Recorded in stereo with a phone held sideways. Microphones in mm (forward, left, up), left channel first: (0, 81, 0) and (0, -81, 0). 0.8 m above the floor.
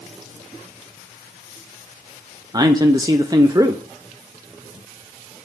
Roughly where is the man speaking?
Right.